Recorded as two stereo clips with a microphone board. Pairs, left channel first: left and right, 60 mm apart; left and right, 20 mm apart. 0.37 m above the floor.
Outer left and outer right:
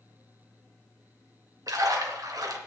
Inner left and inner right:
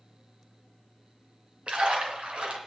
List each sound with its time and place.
1.7 s a splash: 70° right (ahead or behind), 2.5 m